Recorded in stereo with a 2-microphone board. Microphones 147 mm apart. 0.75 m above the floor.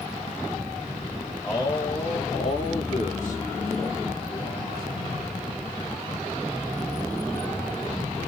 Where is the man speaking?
25° left (ahead or behind), 1.5 m; by 5.4 s 75° left (ahead or behind), 3 m.